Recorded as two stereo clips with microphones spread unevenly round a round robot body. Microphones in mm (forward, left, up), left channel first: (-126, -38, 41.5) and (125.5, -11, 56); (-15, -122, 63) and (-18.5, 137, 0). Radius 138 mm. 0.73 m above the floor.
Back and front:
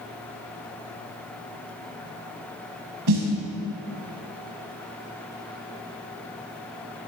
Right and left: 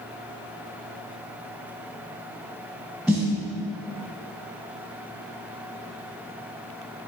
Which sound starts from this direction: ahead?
A snare drum, at 3.1 s.